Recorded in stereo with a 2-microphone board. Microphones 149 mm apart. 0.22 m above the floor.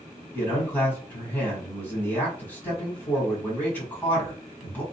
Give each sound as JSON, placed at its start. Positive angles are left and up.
{"t": 0.3, "sound": "a man speaking", "side_deg": 10, "distance_m": 1.9}